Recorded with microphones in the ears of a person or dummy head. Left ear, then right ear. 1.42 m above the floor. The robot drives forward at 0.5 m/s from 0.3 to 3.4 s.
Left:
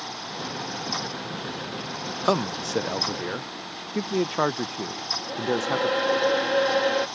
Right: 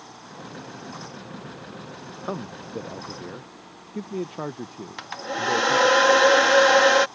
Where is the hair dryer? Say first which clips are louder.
Right 3 dB; 50° right (ahead or behind).